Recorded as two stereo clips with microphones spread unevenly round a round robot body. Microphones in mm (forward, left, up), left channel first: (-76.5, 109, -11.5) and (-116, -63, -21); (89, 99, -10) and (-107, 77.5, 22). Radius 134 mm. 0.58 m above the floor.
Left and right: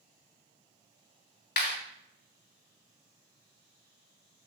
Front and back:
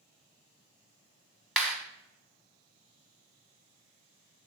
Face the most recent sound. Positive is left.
turn(degrees=95)